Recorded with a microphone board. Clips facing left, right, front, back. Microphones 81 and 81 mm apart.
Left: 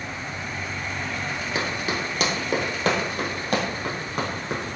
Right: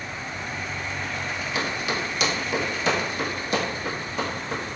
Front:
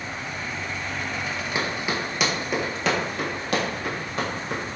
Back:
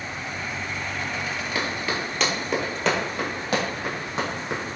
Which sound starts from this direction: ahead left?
Running footsteps, at 1.6 s.